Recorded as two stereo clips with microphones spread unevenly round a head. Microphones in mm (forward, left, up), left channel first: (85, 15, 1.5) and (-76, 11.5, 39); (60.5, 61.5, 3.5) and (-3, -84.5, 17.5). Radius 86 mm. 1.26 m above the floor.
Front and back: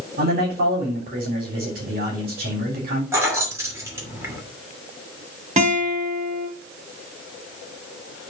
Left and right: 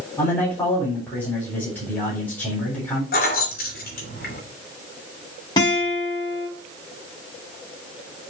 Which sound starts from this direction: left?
Keys jangling, at 3.1 s.